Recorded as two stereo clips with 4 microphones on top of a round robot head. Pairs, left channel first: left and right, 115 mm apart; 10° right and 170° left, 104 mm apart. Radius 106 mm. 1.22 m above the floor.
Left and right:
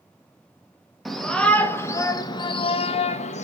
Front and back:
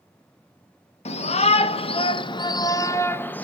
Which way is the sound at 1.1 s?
Straight ahead.